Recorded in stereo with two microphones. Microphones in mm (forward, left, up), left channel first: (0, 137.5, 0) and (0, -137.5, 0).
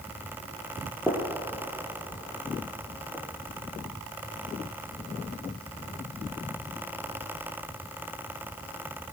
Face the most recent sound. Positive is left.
turn(degrees=-5)  # may be behind; listen again after turning